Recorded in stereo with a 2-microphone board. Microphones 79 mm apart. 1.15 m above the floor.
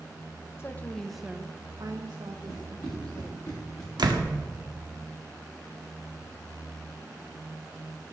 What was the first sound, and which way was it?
A woman speaking, 30° left (ahead or behind).